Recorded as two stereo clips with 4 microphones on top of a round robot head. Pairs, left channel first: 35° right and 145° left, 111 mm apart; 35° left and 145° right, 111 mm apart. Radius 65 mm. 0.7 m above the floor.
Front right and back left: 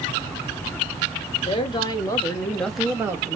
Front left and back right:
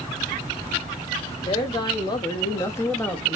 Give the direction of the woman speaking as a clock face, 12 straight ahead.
12 o'clock.